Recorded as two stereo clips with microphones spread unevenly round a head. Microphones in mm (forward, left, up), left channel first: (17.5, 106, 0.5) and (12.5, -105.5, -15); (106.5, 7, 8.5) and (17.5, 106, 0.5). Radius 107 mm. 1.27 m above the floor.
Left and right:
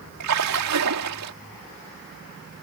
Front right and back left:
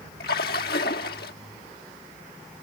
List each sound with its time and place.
0.2 s a splash: 85° right